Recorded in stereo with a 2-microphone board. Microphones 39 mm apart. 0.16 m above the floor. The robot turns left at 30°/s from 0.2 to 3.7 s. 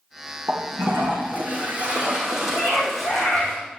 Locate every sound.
0.5 s a toilet flushing: 110° right, 3.5 m; by 3.5 s 160° left, 3.5 m
2.5 s a scream: 45° left (ahead or behind), 7.5 m; by 3.5 s 70° left (ahead or behind), 7.5 m